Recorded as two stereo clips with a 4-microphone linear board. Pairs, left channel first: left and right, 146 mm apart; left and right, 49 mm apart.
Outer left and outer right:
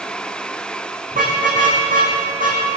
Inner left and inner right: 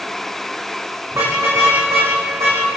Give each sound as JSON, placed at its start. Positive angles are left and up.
{"t": 1.1, "sound": "a car horn", "side_deg": -75, "distance_m": 10.0}